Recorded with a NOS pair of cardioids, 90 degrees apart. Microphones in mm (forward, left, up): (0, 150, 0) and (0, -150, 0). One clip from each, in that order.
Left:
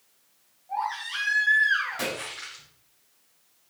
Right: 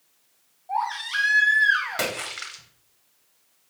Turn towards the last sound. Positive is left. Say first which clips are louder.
# right 3 dB
turn(degrees=-65)